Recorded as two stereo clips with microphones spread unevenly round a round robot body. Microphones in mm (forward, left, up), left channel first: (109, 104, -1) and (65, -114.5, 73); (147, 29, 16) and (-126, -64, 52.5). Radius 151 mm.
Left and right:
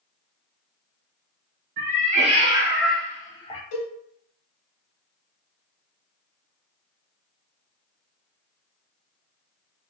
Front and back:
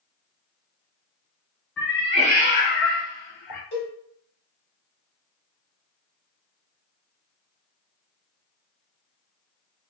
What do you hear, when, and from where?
1.8 s a cat meowing: 65° right, 1.1 m; by 3.6 s 10° left, 1.1 m
3.7 s a cowbell: 75° left, 1.3 m